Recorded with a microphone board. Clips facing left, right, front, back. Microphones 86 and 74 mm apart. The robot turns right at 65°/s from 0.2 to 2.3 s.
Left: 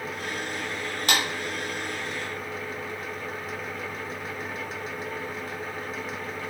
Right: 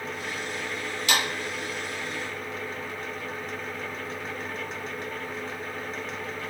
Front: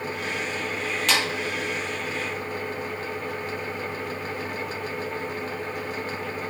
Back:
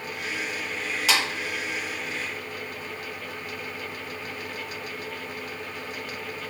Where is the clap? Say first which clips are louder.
Even, even; 95° left, 1.2 m; by 1.2 s 105° left, 1.2 m.